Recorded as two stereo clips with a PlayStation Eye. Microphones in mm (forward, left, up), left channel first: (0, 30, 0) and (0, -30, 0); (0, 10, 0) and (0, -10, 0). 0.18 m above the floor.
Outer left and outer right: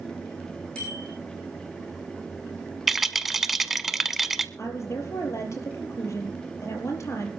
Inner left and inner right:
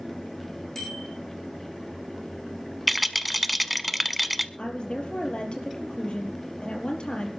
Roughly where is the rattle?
Centre.